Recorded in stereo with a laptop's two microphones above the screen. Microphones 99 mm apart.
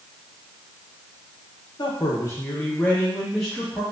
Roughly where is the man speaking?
Left.